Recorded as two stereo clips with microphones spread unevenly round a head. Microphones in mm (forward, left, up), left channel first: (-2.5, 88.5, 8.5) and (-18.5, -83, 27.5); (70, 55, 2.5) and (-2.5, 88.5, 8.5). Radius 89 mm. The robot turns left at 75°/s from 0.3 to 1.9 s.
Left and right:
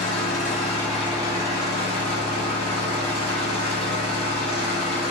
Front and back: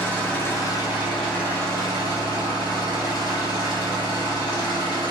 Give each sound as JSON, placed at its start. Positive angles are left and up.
{"t": 0.0, "sound": "an engine running", "azimuth_deg": 40, "distance_m": 1.9}